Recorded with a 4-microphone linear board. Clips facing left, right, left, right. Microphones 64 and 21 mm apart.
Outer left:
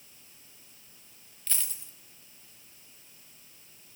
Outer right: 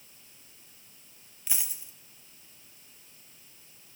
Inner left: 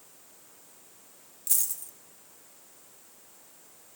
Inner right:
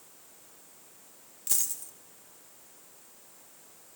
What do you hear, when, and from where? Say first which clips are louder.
1.5 s a dropped coin: outer right 1 dB, even; 10° right (ahead or behind), 0.9 m